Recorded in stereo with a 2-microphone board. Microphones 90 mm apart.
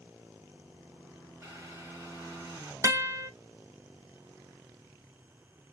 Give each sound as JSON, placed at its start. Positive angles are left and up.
{"t": 1.4, "sound": "boiling", "side_deg": -25, "distance_m": 1.2}
{"t": 2.8, "sound": "a guitar", "side_deg": -35, "distance_m": 0.5}